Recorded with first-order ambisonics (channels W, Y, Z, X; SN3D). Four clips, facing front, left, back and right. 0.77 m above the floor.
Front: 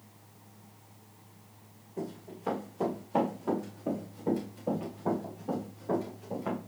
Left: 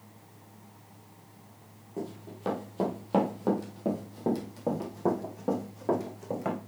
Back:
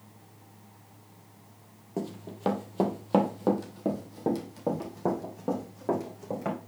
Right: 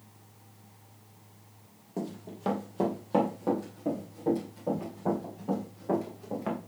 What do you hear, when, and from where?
2.0 s running footsteps: 170° right, 1.7 m; by 6.6 s 130° left, 3 m